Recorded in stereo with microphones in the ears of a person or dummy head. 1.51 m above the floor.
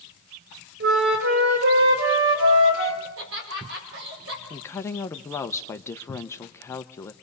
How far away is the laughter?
About 6.5 m.